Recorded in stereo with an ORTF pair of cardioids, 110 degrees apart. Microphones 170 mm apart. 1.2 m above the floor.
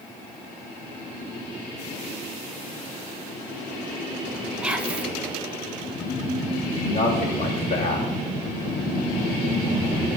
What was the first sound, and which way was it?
Whispering, 5° right.